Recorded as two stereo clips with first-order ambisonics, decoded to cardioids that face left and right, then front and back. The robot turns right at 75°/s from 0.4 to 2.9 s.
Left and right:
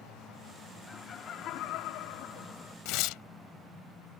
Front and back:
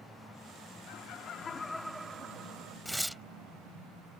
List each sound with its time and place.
0.9 s laughter: 15° left; by 2.8 s 155° left
2.9 s tearing paper: 85° left; by 3.2 s 90° left